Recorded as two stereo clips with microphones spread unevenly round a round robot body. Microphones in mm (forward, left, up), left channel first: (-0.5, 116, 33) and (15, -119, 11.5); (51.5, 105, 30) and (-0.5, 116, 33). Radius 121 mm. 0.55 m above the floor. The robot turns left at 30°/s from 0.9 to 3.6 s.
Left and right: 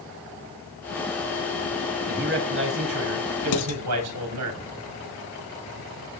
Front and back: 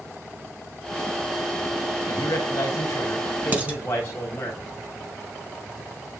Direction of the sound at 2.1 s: 35° right.